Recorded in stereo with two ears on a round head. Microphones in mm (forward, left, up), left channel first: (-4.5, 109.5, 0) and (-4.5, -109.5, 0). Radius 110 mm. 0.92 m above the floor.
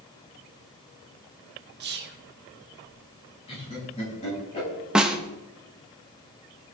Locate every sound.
1.8 s whispering: 45° right (ahead or behind), 1.7 m
3.5 s laughter: 25° left (ahead or behind), 6 m
5.0 s a snare drum: 5° right (ahead or behind), 1.0 m